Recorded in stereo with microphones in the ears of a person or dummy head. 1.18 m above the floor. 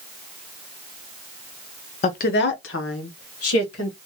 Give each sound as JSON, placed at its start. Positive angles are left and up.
{"t": 2.0, "sound": "a woman speaking", "side_deg": 35, "distance_m": 0.5}